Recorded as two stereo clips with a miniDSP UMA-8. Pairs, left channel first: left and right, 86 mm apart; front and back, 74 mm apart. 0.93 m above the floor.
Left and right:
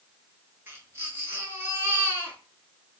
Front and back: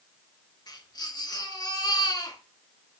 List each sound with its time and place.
0.7 s a baby crying: 25° right, 5.5 m